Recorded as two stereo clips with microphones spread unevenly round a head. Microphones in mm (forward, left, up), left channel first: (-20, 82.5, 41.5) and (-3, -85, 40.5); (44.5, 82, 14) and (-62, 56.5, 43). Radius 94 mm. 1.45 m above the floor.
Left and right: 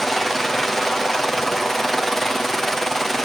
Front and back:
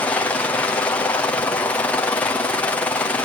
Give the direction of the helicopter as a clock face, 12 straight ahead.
12 o'clock.